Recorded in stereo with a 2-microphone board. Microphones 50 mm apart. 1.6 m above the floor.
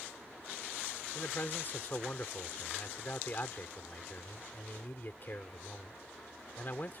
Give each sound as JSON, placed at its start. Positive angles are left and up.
{"t": 1.1, "sound": "a man speaking", "side_deg": 45}